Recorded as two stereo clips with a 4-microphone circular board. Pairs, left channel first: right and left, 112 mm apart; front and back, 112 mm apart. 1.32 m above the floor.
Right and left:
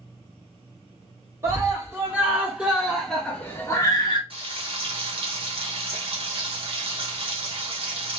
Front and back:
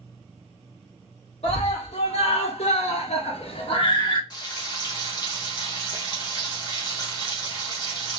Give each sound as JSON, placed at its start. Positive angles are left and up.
{"t": 1.4, "sound": "a scream", "azimuth_deg": 25, "distance_m": 1.9}
{"t": 4.3, "sound": "frying", "azimuth_deg": 55, "distance_m": 1.1}